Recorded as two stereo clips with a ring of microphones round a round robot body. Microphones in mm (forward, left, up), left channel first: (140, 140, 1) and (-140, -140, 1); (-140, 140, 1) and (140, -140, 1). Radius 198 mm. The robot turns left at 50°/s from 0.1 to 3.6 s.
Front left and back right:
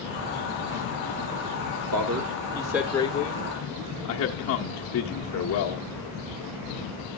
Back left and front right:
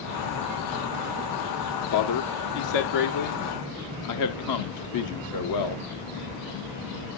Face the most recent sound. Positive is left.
turn(degrees=95)